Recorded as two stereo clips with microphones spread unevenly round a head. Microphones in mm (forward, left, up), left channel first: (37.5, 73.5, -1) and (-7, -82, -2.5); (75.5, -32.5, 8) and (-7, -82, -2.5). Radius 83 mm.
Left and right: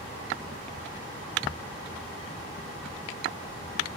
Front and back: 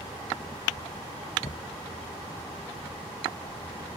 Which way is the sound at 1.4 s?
25° right.